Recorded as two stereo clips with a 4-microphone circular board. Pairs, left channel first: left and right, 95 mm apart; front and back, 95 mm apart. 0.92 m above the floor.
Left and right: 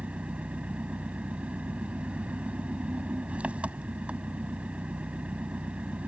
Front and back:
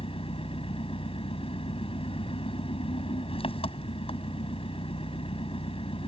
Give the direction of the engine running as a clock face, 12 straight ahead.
12 o'clock.